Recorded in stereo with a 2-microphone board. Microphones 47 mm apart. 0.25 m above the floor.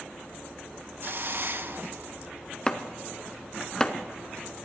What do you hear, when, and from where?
1.0 s a hiss: 50° right (ahead or behind), 0.7 m
2.7 s chopping: 15° left (ahead or behind), 0.9 m